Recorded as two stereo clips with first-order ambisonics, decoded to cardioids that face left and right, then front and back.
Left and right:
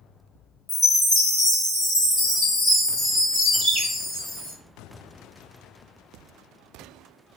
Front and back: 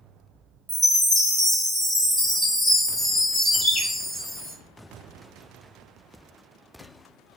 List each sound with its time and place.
0.7 s a chime: 160° left, 1.2 m
3.5 s a bird: 75° right, 0.9 m